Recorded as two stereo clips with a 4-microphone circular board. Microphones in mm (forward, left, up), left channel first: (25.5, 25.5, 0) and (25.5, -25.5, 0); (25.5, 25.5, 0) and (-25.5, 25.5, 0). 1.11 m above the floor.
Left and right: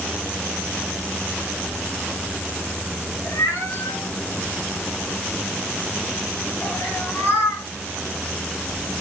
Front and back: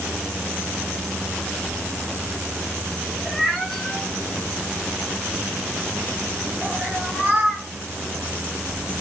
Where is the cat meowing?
90° left, 5 m; by 7.7 s 115° left, 5.5 m.